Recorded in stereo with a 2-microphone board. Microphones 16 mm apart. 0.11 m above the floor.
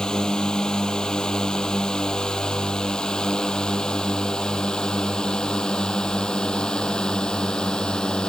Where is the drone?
45° left (ahead or behind); by 8.3 s 55° left (ahead or behind).